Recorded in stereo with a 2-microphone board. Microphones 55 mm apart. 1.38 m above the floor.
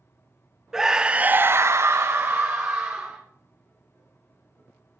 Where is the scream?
5° right (ahead or behind), 0.9 m; by 3.2 s 30° right (ahead or behind), 1.5 m.